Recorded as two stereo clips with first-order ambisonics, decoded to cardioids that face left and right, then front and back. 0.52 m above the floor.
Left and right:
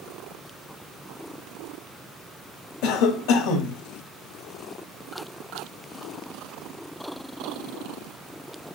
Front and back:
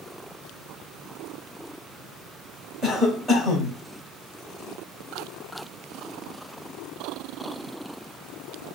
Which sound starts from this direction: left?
A cough, at 2.8 s.